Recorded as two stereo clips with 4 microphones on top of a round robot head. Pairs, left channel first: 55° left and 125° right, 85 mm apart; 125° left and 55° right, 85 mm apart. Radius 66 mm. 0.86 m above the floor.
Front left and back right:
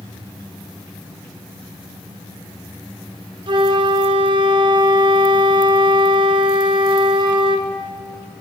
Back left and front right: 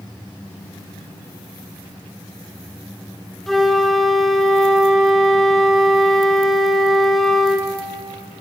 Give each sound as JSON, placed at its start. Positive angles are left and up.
{"t": 3.5, "sound": "a flute", "azimuth_deg": -145, "distance_m": 2.5}